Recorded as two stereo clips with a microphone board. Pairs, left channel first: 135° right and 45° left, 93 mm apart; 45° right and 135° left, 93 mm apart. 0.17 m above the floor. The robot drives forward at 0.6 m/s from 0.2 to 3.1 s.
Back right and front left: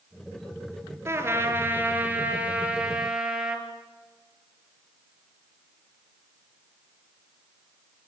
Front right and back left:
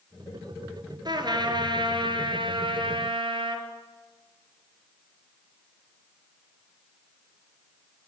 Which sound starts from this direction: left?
A trumpet, at 1.1 s.